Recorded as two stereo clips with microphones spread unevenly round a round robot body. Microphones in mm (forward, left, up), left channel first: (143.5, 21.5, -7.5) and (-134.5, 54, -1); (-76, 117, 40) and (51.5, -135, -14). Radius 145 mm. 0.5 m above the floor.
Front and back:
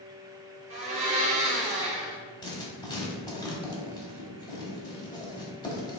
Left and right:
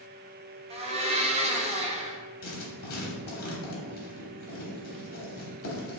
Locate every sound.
0.7 s a blender: 120° right, 0.6 m
2.4 s writing: 60° left, 1.1 m